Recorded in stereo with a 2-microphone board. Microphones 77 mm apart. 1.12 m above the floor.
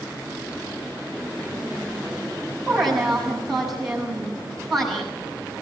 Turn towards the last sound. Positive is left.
turn(degrees=0)  # may be behind; listen again after turning